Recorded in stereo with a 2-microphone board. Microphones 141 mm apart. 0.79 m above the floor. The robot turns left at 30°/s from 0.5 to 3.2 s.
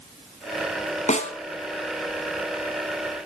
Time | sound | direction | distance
1.1 | a snare drum | 60° left (ahead or behind) | 2.5 m